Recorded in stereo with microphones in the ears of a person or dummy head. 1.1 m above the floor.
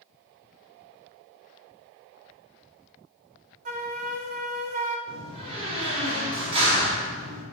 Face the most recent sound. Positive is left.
turn(degrees=-35)  # may be behind; listen again after turning